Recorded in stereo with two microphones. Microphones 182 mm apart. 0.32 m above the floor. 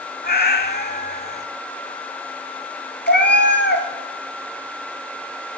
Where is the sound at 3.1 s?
85° left, 1.1 m.